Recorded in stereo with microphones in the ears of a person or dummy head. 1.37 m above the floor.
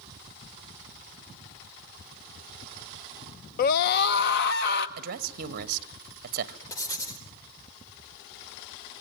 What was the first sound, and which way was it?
A scream, 55° left (ahead or behind).